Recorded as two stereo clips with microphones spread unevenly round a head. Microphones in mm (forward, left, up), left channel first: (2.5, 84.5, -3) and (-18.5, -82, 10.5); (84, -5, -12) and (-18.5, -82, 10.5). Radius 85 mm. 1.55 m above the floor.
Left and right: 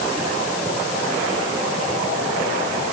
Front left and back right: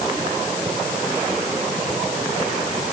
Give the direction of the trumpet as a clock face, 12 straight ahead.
I don't hear a trumpet.